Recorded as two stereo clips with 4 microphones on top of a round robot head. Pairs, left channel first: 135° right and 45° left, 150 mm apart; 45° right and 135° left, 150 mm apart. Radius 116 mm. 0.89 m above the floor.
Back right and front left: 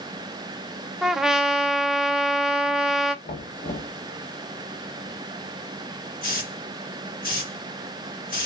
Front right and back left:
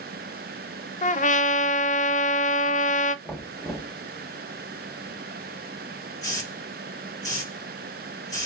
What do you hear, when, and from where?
1.0 s a trumpet: 40° right, 0.6 m
3.2 s knocking: 130° right, 1.8 m
6.2 s a hiss: 110° right, 3 m